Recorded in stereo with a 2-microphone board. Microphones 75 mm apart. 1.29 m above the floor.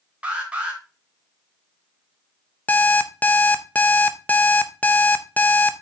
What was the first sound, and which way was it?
An alarm, 15° right (ahead or behind).